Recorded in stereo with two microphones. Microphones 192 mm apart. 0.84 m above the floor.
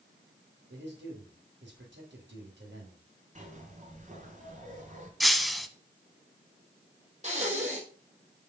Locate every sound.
0.7 s a man speaking: 70° right (ahead or behind), 4 m
3.4 s a zipper: 40° right (ahead or behind), 2.5 m
5.2 s breaking glass: centre (ahead or behind), 0.8 m
7.2 s breathing: 35° right (ahead or behind), 4.5 m